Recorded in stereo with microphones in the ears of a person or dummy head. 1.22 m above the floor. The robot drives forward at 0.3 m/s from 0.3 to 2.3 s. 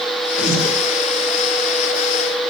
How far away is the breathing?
About 1.7 m.